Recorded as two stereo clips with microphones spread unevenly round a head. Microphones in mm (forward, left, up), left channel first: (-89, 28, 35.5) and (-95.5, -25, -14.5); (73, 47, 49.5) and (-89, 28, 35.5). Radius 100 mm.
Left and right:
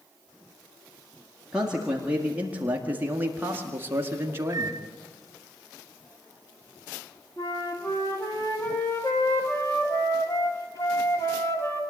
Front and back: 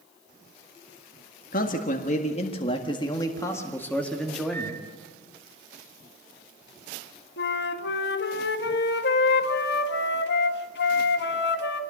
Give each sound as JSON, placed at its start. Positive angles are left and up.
{"t": 1.5, "sound": "a man speaking", "azimuth_deg": -35, "distance_m": 1.9}
{"t": 4.5, "sound": "a microwave", "azimuth_deg": -75, "distance_m": 0.9}
{"t": 7.4, "sound": "a flute", "azimuth_deg": 0, "distance_m": 1.7}